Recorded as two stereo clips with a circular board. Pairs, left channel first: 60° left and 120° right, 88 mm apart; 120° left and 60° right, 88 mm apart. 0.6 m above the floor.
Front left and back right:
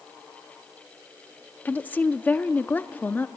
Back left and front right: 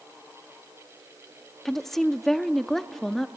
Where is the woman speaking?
40° left, 0.5 m.